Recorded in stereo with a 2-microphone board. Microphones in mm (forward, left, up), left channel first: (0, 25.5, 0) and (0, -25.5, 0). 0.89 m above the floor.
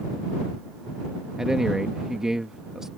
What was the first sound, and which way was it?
A man speaking, 15° right (ahead or behind).